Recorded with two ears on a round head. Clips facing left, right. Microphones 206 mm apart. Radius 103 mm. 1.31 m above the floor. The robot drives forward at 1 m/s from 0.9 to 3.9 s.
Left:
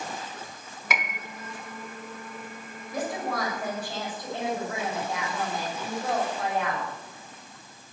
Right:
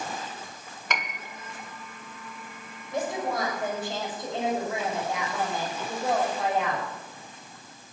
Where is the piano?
5° left (ahead or behind), 1.1 m.